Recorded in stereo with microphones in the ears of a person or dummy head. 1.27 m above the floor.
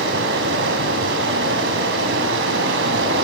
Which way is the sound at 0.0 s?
80° right.